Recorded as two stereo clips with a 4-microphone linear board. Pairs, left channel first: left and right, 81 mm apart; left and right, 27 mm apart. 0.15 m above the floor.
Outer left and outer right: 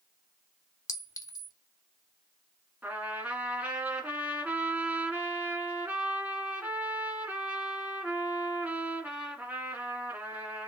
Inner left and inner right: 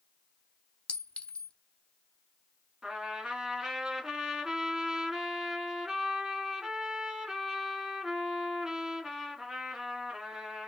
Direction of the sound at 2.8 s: 20° right (ahead or behind).